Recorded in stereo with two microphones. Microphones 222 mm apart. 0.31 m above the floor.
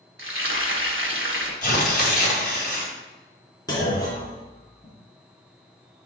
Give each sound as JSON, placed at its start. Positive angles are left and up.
{"t": 0.2, "sound": "frying", "side_deg": -60, "distance_m": 1.4}
{"t": 1.6, "sound": "tearing paper", "side_deg": 40, "distance_m": 2.5}
{"t": 3.7, "sound": "a clunk", "side_deg": 15, "distance_m": 3.0}